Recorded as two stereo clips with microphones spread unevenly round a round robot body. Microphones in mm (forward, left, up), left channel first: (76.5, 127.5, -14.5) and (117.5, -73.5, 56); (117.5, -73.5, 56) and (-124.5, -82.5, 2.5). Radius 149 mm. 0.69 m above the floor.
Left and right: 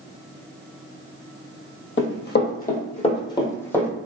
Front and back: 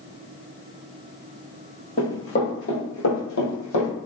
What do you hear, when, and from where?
2.0 s running footsteps: 65° left, 1.2 m; by 3.9 s 10° left, 1.3 m